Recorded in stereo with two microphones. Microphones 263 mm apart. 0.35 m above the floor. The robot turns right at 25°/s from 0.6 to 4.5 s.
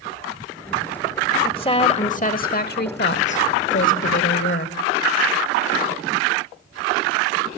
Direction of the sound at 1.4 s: 25° left.